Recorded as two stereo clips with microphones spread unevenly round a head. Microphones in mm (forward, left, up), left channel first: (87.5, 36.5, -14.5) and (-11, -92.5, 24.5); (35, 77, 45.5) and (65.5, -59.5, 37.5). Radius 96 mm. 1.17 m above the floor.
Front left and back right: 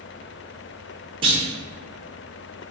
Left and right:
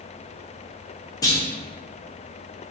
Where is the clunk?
165° left, 0.6 m.